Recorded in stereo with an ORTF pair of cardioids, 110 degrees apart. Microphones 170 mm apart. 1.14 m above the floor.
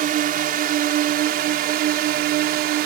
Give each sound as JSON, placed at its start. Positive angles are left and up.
{"t": 0.0, "sound": "a drone", "azimuth_deg": -60}